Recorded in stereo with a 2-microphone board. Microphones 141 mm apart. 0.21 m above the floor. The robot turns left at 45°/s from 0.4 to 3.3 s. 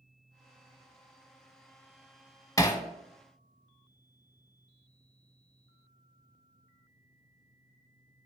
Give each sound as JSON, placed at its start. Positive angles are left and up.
{"t": 2.6, "sound": "hammering", "side_deg": 25, "distance_m": 0.6}